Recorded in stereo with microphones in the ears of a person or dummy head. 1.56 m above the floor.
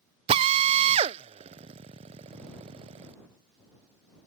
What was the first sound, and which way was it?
A drill, 35° right (ahead or behind).